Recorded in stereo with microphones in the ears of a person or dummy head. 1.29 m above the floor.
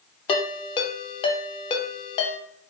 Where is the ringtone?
30° left (ahead or behind), 0.5 m.